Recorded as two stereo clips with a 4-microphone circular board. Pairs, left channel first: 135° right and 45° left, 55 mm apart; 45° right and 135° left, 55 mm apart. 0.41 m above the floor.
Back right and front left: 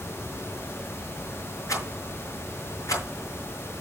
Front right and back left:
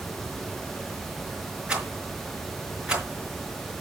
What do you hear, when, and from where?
1.7 s a rattle: 155° right, 5 m